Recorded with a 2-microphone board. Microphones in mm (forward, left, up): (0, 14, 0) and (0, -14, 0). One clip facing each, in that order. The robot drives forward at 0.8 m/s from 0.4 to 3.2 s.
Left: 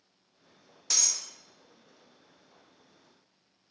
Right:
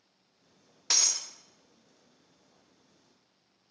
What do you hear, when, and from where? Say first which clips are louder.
0.9 s breaking glass: right 2 dB; 25° right (ahead or behind), 0.8 m; by 1.3 s 40° right (ahead or behind), 0.5 m